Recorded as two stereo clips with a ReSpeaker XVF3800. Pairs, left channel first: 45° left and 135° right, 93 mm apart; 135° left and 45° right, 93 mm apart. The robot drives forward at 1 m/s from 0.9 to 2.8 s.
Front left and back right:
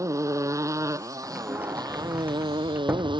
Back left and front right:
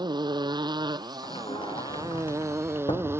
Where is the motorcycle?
80° right; by 3.2 s 110° right.